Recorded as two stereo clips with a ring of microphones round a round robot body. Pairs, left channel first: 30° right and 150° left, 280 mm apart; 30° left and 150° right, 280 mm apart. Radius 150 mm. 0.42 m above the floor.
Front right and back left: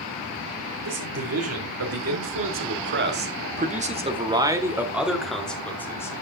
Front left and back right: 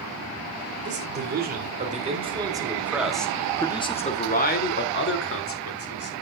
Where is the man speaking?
165° left, 2.5 m; by 6.2 s 50° left, 2.5 m.